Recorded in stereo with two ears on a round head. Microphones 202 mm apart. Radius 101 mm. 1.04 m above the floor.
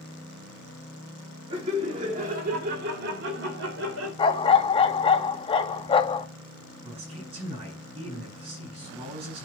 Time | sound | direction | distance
1.5 | laughter | 25° right (ahead or behind) | 2.5 m
4.2 | a dog barking | 25° left (ahead or behind) | 0.6 m
6.8 | a man speaking | 25° right (ahead or behind) | 6 m